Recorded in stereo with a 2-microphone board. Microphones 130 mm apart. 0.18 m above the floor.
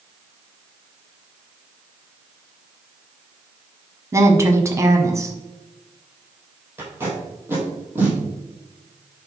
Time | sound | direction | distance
4.1 | a woman speaking | 25° right (ahead or behind) | 1.1 m
6.8 | tape being pulled | 15° right (ahead or behind) | 3 m